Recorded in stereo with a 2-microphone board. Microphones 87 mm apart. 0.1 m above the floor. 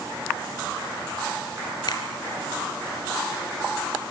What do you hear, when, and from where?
1.9 s a finger snap: 55° left (ahead or behind), 2 m